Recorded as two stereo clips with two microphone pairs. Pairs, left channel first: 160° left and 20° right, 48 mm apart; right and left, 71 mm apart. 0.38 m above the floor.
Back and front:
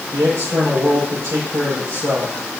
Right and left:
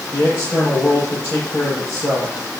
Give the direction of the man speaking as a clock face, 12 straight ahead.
1 o'clock.